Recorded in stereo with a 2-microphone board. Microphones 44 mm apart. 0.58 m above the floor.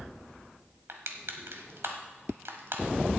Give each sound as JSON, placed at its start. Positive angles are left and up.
{"t": 0.9, "sound": "crushing", "side_deg": -65, "distance_m": 1.3}